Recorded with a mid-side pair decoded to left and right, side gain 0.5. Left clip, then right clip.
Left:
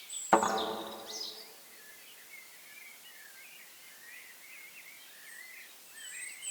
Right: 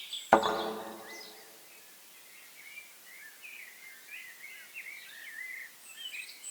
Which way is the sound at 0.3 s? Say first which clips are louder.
Right 2 dB; 35° right.